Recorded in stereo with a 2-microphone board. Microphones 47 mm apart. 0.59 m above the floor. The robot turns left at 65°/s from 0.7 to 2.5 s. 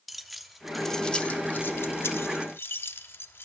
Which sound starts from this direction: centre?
Keys jangling, at 0.1 s.